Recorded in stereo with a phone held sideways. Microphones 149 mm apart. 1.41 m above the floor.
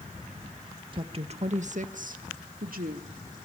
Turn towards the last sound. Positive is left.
turn(degrees=-80)